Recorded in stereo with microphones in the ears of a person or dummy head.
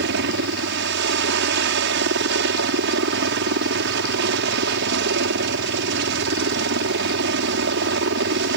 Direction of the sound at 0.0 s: 60° right (ahead or behind).